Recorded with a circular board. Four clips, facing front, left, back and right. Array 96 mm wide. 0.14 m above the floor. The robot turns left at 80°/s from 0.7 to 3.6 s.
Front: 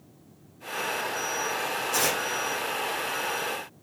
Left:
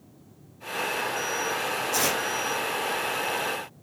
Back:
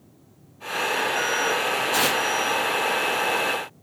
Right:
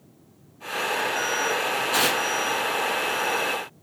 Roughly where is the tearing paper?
Behind right.